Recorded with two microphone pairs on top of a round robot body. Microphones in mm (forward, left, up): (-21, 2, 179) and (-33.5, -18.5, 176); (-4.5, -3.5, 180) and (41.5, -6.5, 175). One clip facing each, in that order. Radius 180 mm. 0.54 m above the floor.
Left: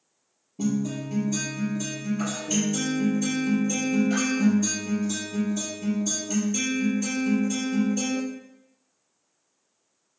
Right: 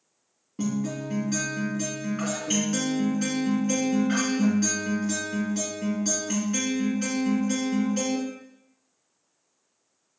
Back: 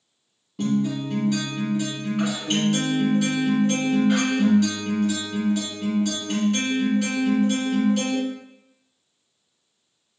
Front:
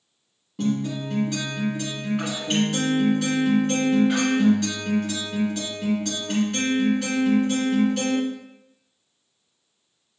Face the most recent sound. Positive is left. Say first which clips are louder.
# left 2 dB, back 2 dB
turn(degrees=-90)